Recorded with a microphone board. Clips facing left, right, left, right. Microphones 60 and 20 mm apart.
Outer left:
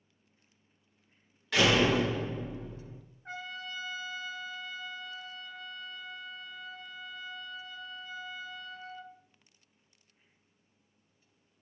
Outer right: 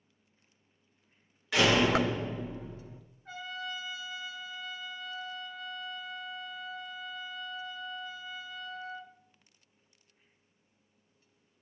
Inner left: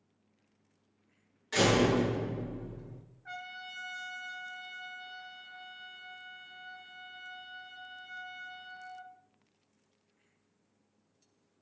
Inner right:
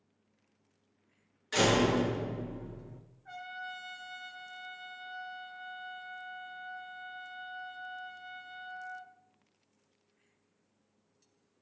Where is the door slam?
10° right (ahead or behind), 1.4 m.